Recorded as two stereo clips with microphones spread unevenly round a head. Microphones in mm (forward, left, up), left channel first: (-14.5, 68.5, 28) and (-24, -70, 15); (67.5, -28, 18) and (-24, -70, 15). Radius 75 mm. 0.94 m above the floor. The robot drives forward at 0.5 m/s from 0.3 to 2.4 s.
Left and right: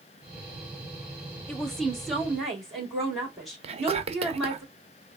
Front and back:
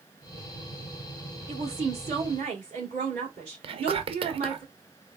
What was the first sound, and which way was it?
A woman speaking, 175° left.